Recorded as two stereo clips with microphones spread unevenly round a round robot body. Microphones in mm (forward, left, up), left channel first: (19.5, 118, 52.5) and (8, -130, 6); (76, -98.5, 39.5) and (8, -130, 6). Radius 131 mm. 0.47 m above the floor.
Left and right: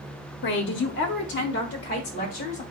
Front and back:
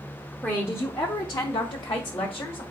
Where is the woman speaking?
120° left, 0.8 m; by 2.6 s 25° left, 1.5 m.